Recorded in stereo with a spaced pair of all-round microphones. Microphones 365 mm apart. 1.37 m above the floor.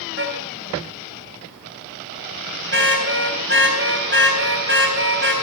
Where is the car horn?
35° right (ahead or behind), 3.5 m.